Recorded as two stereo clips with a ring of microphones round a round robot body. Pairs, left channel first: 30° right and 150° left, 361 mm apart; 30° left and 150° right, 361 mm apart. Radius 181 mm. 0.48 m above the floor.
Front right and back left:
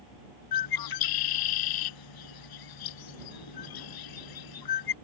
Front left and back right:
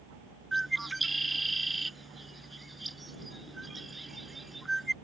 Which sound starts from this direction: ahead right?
A bird, at 0.5 s.